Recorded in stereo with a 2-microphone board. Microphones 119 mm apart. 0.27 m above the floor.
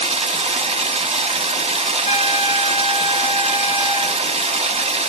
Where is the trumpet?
70° left (ahead or behind), 1.2 m.